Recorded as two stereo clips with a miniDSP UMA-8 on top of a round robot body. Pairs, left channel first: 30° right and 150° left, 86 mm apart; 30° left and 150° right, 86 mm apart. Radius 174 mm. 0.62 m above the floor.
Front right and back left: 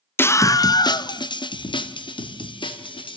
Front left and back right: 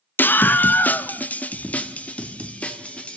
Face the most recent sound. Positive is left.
turn(degrees=-45)